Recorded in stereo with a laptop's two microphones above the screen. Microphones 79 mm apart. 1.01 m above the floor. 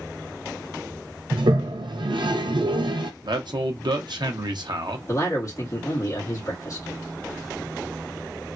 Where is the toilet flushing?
75° right (ahead or behind), 0.6 m.